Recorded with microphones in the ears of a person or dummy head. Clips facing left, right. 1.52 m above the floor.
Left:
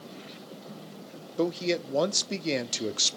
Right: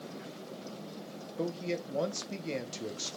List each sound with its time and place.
1.4 s a man speaking: 70° left (ahead or behind), 0.6 m